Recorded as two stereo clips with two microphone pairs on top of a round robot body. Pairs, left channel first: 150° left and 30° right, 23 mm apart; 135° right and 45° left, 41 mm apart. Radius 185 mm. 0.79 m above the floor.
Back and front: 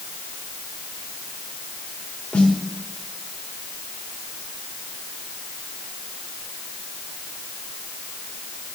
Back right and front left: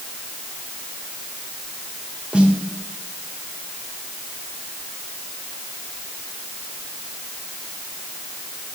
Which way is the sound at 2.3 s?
115° left.